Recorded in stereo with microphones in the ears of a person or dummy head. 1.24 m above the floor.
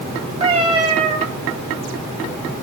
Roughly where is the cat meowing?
Right.